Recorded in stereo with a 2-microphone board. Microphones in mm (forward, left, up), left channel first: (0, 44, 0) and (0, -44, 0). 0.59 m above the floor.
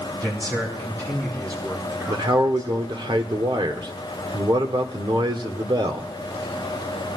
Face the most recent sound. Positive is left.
turn(degrees=-60)  # may be behind; listen again after turning